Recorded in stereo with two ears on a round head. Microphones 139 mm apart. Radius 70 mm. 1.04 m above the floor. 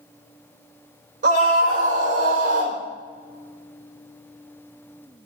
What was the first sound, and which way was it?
A scream, 55° right (ahead or behind).